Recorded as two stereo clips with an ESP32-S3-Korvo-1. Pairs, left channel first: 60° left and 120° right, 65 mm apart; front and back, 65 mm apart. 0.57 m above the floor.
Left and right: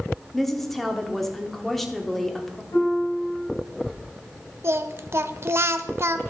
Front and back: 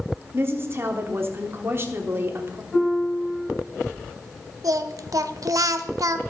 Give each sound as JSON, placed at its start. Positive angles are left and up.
{"t": 0.3, "sound": "a woman speaking", "azimuth_deg": 145, "distance_m": 1.1}
{"t": 2.7, "sound": "a piano", "azimuth_deg": 65, "distance_m": 4.5}
{"t": 4.6, "sound": "singing", "azimuth_deg": -165, "distance_m": 0.5}